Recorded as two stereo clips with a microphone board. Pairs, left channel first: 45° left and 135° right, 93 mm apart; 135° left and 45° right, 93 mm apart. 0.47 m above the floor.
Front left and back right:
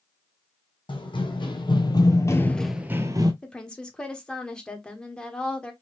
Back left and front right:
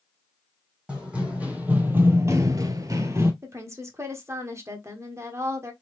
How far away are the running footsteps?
About 1.6 m.